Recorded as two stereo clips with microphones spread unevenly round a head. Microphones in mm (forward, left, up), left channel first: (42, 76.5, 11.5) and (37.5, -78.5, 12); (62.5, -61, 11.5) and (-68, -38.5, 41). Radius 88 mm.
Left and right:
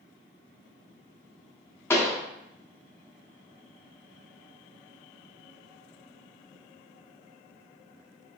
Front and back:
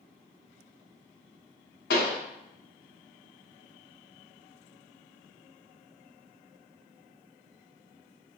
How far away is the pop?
About 1.0 m.